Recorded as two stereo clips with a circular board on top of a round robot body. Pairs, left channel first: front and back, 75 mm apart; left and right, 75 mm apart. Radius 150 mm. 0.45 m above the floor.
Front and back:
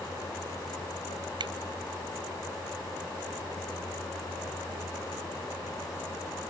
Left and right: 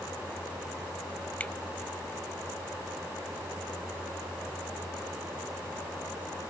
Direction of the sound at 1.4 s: 160° left.